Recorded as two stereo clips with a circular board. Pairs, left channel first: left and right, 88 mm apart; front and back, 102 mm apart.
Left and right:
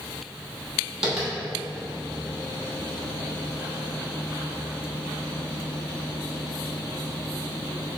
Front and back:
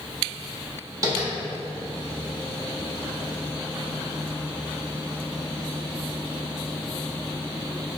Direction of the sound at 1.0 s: 165° right.